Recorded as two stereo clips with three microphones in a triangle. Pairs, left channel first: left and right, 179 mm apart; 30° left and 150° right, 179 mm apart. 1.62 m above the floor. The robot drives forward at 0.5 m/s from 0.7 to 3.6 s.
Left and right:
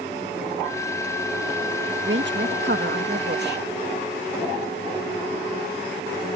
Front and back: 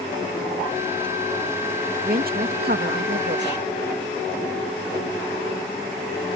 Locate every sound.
2.0 s a woman speaking: 110° right; by 3.6 s 120° right